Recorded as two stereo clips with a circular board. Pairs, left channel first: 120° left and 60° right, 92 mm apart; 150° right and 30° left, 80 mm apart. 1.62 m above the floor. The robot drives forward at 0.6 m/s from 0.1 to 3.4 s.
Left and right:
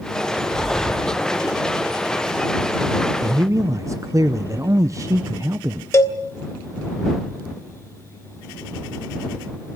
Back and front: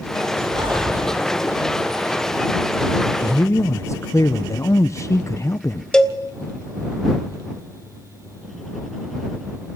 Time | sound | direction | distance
0.5 | breathing | 30° left | 1.8 m
3.2 | a man speaking | 95° right | 0.7 m
5.9 | a cowbell | 135° left | 1.3 m